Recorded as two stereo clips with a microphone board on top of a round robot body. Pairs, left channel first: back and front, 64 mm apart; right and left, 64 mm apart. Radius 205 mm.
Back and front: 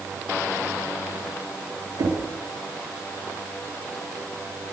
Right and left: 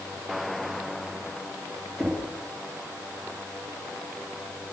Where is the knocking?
5° left, 8 m.